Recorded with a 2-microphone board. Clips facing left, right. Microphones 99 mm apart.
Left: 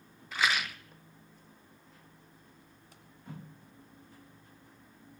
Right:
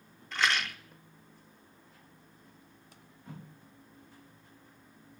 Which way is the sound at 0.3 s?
5° left (ahead or behind).